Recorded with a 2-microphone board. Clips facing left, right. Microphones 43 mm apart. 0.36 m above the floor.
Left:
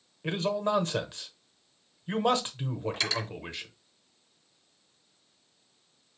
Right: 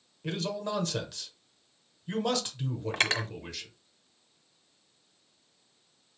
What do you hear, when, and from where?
0.2 s a man speaking: 30° left (ahead or behind), 1.0 m
2.9 s cutlery clinking: 50° right (ahead or behind), 0.6 m